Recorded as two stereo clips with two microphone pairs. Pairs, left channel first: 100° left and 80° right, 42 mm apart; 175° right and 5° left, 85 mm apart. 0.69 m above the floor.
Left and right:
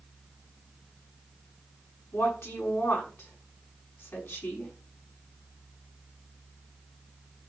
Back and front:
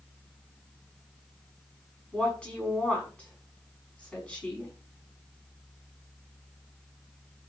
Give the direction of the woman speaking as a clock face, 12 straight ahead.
8 o'clock.